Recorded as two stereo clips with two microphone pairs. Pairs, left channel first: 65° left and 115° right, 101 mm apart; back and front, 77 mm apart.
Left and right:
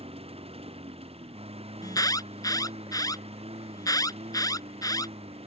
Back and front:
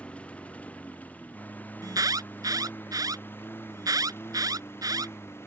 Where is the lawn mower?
105° right; by 5.5 s 120° right.